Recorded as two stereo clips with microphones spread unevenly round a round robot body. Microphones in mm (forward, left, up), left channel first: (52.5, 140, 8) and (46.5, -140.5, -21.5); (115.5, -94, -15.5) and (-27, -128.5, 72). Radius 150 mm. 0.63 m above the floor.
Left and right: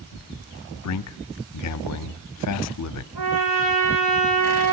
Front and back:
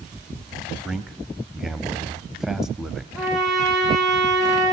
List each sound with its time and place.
0.8 s a man speaking: 80° left, 0.9 m
3.1 s a trumpet: 80° right, 8.5 m